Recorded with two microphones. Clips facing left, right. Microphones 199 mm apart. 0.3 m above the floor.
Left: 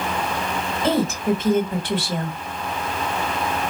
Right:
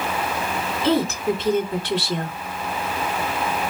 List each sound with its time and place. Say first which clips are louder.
0.8 s a woman speaking: even; 50° left (ahead or behind), 1.5 m